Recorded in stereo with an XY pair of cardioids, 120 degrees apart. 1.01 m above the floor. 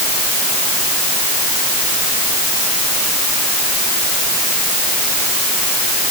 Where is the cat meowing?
I don't hear a cat meowing.